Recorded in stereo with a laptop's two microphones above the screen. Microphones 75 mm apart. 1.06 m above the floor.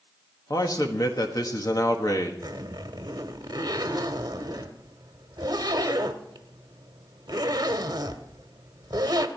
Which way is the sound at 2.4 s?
65° right (ahead or behind).